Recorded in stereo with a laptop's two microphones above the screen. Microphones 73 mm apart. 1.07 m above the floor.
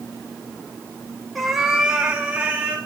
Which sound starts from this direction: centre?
A cat meowing, at 1.4 s.